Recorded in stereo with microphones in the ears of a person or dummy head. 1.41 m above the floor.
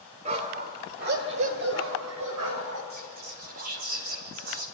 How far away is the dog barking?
About 2 m.